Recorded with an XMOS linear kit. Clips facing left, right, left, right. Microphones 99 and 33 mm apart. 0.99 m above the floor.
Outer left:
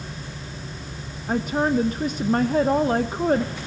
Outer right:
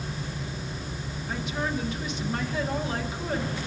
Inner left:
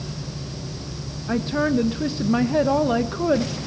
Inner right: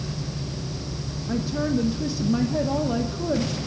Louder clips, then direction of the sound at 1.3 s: Outer left 9 dB, inner left 4 dB; 45° left (ahead or behind).